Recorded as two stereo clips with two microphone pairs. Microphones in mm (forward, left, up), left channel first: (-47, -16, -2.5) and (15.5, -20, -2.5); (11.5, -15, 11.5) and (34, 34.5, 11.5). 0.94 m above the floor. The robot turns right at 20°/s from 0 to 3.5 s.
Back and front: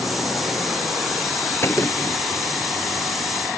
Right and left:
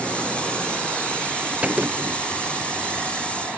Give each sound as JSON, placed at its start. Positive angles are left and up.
{"t": 1.6, "sound": "a gunshot", "azimuth_deg": 130}